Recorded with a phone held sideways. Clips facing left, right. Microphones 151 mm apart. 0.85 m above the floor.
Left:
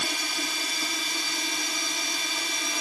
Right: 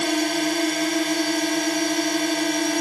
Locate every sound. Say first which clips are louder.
0.0 s a drone: right 13 dB; 55° right (ahead or behind)